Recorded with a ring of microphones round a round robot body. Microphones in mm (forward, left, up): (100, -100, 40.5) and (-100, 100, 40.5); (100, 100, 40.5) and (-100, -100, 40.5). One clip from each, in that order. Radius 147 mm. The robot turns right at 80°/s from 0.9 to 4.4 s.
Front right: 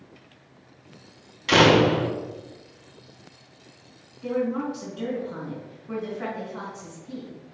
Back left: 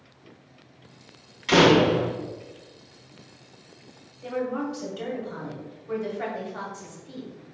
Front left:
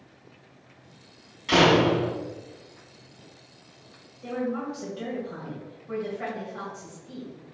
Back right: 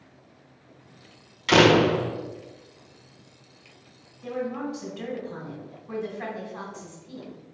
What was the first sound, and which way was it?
A door slam, 130° right.